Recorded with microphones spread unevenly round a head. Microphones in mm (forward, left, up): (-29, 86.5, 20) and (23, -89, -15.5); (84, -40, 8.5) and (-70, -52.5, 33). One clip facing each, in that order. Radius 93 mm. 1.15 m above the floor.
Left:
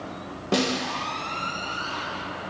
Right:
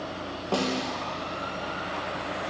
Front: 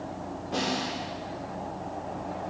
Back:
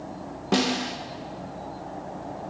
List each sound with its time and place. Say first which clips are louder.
0.5 s a snare drum: left 3 dB, back 6 dB; 175° left, 0.7 m